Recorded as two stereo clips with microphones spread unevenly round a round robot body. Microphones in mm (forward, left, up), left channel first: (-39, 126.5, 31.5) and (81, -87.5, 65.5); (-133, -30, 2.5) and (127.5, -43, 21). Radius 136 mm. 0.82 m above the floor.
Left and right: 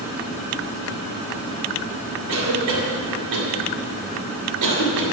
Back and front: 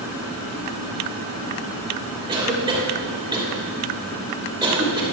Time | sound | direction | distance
2.3 | a cough | 75° right | 2.5 m